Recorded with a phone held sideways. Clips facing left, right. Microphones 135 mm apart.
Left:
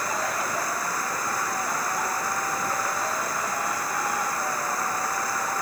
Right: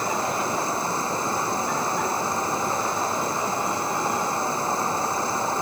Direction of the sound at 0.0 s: 30° right (ahead or behind).